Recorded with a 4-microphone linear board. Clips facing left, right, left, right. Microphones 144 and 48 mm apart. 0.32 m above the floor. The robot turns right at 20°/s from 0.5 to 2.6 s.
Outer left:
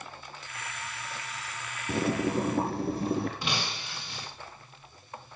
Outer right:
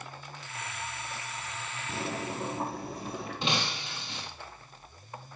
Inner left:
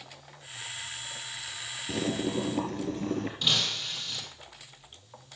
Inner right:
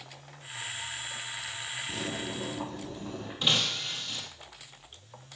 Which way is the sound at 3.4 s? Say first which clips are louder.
Outer right 2 dB, inner right 6 dB; 20° right (ahead or behind).